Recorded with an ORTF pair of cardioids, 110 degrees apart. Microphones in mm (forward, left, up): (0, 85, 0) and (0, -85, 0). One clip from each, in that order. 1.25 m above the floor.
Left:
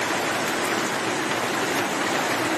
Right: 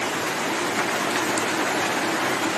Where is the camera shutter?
No camera shutter in this recording.